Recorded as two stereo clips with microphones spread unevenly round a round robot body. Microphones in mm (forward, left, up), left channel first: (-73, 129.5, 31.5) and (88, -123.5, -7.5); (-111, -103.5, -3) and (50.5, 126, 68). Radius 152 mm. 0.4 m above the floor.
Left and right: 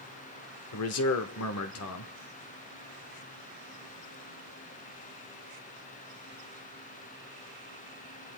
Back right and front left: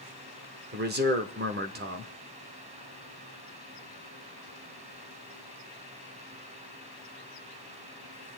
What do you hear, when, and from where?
0.7 s a man speaking: 110° left, 0.9 m